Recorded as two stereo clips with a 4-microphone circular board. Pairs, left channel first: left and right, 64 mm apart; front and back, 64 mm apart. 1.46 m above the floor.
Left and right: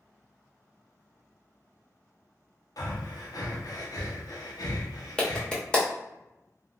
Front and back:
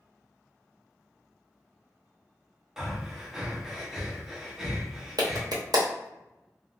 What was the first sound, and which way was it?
Breathing, 95° left.